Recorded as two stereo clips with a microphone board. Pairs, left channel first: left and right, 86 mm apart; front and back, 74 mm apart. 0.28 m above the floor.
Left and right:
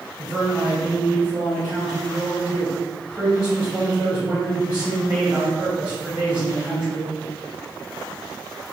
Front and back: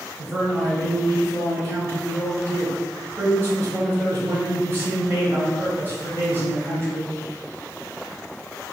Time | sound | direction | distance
0.2 | a man speaking | 155° right | 1.7 m